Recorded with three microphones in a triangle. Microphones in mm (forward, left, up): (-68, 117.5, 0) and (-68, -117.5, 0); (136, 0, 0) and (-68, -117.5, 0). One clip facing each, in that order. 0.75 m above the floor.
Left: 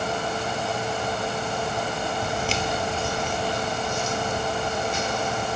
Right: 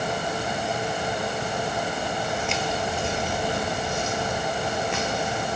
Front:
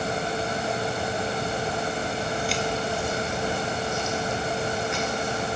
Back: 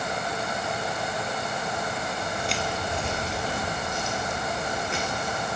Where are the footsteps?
105° left, 1.2 m; by 5.5 s 90° right, 4 m.